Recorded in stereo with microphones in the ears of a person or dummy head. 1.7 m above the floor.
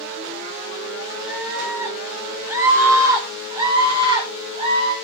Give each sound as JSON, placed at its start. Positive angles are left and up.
{"t": 1.3, "sound": "a scream", "side_deg": -5, "distance_m": 5.0}